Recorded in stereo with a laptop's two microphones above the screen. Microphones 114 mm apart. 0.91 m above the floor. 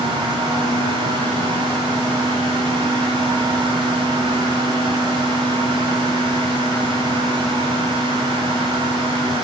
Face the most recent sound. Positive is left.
turn(degrees=-55)  # may be behind; listen again after turning